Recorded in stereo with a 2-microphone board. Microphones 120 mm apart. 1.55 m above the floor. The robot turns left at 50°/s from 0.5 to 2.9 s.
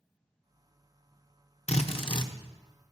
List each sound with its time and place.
1.7 s a drill: 70° left, 0.8 m; by 2.3 s 35° left, 0.8 m